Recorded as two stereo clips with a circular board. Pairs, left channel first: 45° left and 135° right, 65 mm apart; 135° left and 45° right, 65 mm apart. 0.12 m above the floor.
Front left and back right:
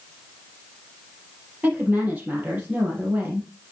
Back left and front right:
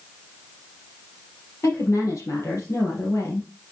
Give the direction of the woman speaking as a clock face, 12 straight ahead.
6 o'clock.